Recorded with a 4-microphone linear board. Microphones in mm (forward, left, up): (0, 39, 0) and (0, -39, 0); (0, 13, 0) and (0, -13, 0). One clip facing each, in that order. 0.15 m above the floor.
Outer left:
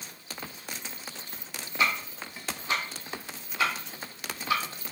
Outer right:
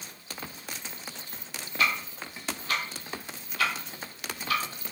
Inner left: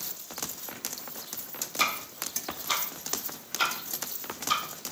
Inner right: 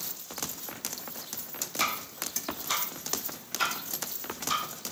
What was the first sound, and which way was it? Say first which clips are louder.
Ticking: even, inner left 2 dB; 20° left (ahead or behind).